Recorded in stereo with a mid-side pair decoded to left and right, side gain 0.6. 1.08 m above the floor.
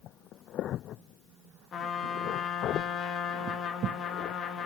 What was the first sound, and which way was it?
A trumpet, 50° left.